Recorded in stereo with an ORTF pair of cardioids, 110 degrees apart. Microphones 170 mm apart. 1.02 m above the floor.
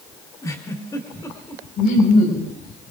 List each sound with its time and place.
0.4 s a giggle: 20° left, 3.5 m
1.8 s laughter: 65° left, 5.5 m